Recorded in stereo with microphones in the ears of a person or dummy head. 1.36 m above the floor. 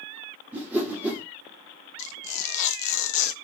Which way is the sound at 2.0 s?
45° left (ahead or behind).